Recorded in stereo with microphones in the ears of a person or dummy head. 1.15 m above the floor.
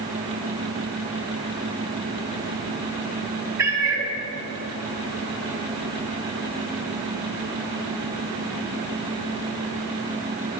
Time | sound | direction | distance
3.6 | a cat meowing | 15° right (ahead or behind) | 1.4 m